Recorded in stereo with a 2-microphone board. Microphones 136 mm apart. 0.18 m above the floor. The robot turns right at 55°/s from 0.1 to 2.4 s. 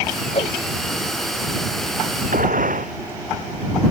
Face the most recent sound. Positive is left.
turn(degrees=-85)